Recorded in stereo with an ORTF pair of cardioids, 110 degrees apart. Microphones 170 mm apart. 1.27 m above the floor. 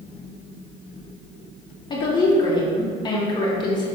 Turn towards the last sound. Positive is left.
turn(degrees=25)